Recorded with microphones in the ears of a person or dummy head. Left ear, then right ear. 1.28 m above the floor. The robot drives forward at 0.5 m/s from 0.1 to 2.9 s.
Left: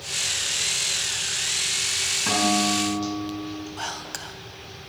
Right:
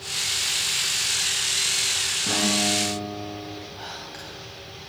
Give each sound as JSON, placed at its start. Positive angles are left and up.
{"t": 2.3, "sound": "a guitar", "side_deg": 55, "distance_m": 4.0}
{"t": 3.8, "sound": "whispering", "side_deg": 50, "distance_m": 0.8}